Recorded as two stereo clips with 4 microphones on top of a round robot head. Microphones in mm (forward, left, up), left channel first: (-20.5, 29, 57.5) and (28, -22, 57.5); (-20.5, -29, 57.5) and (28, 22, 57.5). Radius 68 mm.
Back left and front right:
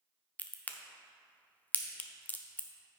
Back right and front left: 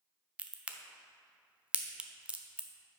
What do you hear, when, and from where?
0.4 s a crack: 100° left, 0.7 m